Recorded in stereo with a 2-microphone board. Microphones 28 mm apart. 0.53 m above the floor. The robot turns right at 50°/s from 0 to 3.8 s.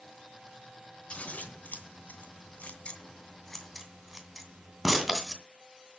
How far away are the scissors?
About 2 m.